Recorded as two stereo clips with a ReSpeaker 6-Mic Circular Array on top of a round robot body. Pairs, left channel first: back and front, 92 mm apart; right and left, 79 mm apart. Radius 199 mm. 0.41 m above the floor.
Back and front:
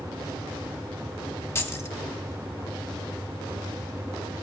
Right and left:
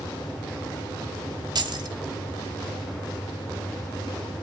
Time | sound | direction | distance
1.6 | keys jangling | 120° left | 1.6 m